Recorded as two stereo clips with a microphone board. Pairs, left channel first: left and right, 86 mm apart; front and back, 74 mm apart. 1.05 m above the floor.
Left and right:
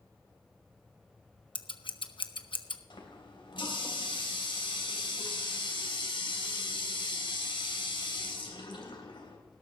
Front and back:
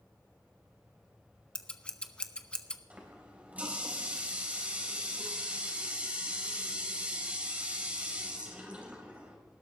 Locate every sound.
1.6 s scissors: 75° left, 0.8 m
2.9 s a running tap: 110° left, 3.5 m